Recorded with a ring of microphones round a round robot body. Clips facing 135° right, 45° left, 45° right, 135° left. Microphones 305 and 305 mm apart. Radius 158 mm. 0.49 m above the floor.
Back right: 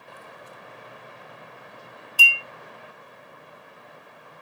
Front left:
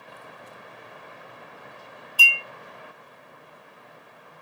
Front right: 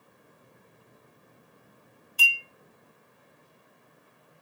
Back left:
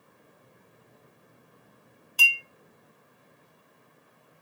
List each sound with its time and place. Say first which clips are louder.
2.2 s a clink: even, back left 1 dB; 160° left, 1.0 m